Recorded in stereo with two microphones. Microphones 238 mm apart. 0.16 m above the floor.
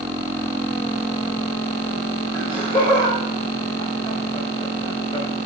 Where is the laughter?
20° left (ahead or behind), 3.5 m.